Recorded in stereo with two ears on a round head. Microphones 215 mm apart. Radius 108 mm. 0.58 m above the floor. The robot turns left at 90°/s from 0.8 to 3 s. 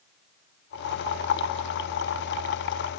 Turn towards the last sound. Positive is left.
No sound to turn to.